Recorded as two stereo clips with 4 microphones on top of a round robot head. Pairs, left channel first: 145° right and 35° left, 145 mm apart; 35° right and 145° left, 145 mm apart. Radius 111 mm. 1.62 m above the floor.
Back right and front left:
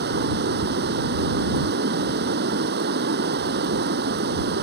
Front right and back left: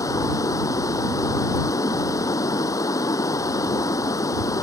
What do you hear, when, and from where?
0.0 s running water: 35° left